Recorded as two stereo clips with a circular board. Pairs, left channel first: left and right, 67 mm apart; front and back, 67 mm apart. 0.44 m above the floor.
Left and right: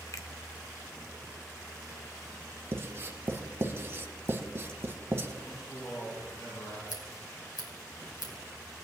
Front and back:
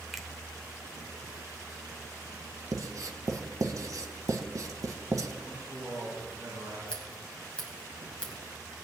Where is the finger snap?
95° left, 0.9 m.